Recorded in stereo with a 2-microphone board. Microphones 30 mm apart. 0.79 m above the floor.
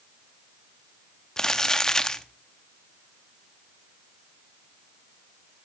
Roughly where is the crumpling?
Left.